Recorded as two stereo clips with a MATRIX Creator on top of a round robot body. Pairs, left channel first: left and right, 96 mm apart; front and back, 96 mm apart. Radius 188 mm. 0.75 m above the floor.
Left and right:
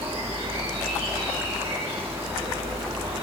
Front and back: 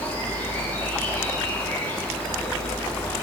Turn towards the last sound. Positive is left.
turn(degrees=-65)